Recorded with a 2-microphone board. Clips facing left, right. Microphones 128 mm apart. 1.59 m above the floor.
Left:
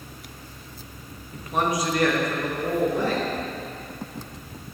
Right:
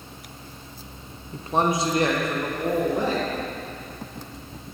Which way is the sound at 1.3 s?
30° right (ahead or behind).